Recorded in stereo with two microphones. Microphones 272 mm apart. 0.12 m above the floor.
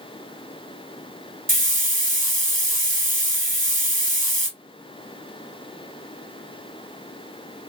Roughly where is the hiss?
Right.